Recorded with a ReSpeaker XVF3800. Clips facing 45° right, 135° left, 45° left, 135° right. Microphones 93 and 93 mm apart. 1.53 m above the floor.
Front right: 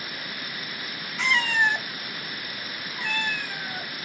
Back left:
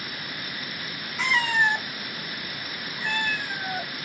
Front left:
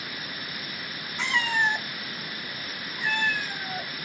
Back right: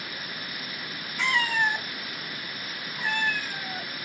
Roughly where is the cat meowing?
Ahead left.